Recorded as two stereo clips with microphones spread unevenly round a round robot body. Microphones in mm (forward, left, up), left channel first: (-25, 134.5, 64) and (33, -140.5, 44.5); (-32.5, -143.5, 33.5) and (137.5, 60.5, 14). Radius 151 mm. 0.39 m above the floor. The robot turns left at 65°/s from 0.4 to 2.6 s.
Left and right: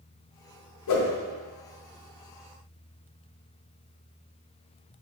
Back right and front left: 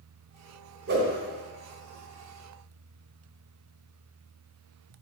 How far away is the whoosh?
About 1.0 m.